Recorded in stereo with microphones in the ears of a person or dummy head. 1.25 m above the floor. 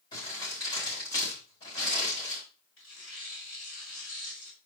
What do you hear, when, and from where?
0.1 s crumpling: 25° left (ahead or behind), 5 m
2.8 s tearing paper: 75° left (ahead or behind), 5 m